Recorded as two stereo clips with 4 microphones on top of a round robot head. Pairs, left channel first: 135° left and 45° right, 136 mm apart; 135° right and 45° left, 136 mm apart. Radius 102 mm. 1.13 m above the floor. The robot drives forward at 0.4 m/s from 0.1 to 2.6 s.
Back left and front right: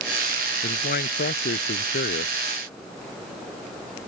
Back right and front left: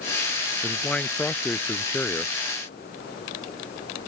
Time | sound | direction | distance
0.6 | a man speaking | 145° left | ?